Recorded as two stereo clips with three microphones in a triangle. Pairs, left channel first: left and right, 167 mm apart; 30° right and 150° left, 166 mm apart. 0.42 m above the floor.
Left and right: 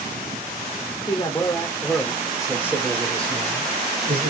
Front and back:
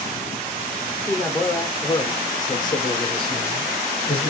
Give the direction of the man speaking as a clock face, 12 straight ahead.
10 o'clock.